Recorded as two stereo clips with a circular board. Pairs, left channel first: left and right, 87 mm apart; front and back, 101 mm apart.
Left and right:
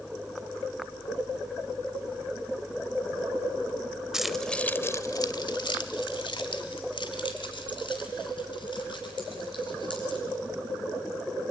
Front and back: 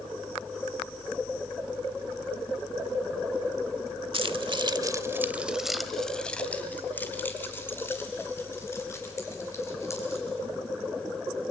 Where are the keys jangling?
175° right, 0.9 m; by 10.2 s 60° left, 4.5 m.